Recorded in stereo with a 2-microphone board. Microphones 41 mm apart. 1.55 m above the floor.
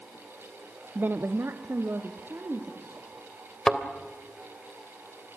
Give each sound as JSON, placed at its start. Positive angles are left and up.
{"t": 0.9, "sound": "a woman speaking", "side_deg": -45, "distance_m": 0.5}
{"t": 3.7, "sound": "a thud", "side_deg": 15, "distance_m": 2.5}